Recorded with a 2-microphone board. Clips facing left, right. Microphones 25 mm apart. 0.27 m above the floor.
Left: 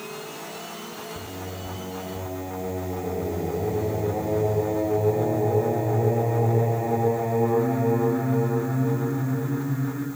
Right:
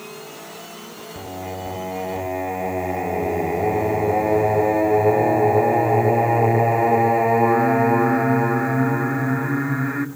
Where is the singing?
70° right (ahead or behind), 0.6 m.